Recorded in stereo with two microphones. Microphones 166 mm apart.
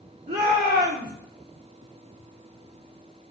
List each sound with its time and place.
0.3 s a shout: 75° right (ahead or behind), 2 m